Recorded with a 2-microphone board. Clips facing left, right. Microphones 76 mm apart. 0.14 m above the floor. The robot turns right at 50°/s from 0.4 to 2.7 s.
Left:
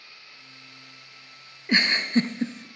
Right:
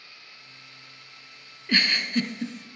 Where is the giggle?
20° left (ahead or behind), 0.7 m; by 2.6 s 40° left (ahead or behind), 0.7 m.